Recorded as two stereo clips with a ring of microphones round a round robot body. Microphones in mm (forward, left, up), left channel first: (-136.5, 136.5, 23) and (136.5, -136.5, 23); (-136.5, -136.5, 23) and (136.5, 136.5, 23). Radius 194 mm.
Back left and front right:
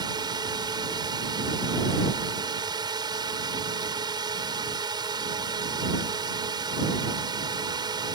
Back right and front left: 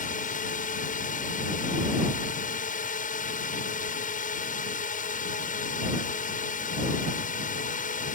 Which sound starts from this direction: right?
A drone, at 0.0 s.